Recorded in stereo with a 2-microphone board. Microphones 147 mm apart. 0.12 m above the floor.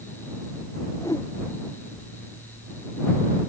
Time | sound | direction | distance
1.0 | a whoosh | 25° left (ahead or behind) | ?